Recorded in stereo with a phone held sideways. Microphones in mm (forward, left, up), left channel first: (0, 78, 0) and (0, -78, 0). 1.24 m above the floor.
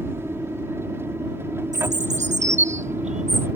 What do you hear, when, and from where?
0.0 s an aircraft: 15° right (ahead or behind)
1.7 s a bird: 45° right (ahead or behind)